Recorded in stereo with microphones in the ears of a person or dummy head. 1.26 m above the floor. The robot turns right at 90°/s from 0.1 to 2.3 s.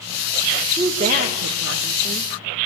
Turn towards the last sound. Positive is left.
turn(degrees=-25)  # may be behind; listen again after turning